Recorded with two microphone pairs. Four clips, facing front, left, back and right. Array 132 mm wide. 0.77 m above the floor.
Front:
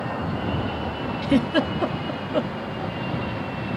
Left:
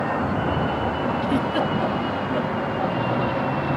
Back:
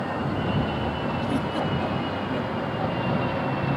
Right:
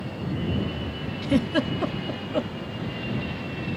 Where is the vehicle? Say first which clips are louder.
Left 8 dB, even; 85° left; by 3.8 s 110° left.